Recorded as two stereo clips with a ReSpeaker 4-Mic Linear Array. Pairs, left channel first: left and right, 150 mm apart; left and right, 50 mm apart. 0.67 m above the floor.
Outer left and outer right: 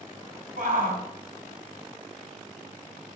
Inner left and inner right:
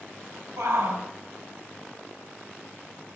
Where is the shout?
70° right (ahead or behind), 3.5 m.